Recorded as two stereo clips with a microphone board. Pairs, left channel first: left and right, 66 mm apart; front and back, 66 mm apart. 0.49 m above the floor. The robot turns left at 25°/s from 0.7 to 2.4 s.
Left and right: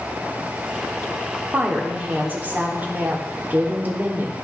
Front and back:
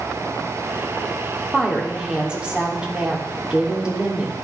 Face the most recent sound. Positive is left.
turn(degrees=-125)